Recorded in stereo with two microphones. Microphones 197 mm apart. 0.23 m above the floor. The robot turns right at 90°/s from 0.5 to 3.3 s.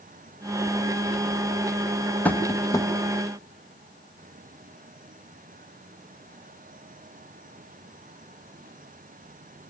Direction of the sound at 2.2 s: 5° left (ahead or behind).